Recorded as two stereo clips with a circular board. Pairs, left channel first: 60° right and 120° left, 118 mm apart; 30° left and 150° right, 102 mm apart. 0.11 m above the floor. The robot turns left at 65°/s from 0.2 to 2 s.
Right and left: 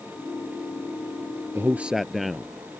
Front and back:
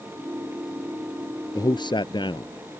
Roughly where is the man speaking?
Ahead left.